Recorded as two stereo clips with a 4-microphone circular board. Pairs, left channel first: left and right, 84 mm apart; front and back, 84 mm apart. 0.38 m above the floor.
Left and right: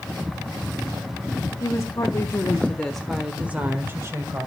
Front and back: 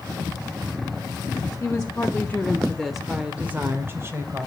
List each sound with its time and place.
1.6 s a woman speaking: 55° left, 1.9 m; by 4.5 s 135° right, 2.0 m